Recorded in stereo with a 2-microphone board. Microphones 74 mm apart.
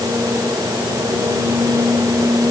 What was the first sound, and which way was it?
Only background noise.